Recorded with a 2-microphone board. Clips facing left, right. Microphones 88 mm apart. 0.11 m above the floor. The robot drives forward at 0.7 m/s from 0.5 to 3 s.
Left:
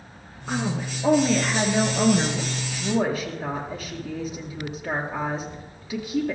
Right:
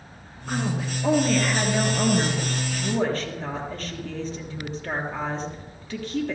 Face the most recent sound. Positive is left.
turn(degrees=10)  # may be behind; listen again after turning